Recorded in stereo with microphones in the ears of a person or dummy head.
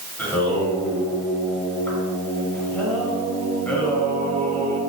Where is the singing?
10° left (ahead or behind), 4.5 m.